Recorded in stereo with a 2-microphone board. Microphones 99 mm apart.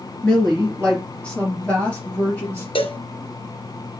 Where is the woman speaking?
10° left (ahead or behind), 2.5 m; by 2.6 s 15° left (ahead or behind), 3.5 m.